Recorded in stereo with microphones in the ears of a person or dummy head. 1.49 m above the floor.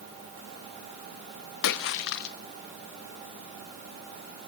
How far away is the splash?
About 1.1 m.